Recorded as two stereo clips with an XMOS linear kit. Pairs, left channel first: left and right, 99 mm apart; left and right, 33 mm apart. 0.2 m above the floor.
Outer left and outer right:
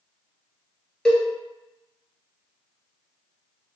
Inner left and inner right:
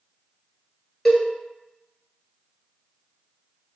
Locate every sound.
1.1 s a cowbell: 5° left (ahead or behind), 0.8 m